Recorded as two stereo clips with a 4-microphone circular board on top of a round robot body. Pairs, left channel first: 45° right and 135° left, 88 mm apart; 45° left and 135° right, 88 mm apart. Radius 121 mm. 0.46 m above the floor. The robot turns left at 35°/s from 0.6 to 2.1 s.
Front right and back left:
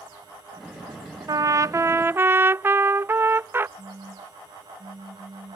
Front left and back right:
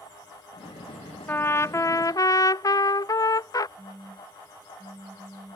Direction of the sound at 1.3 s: 105° left.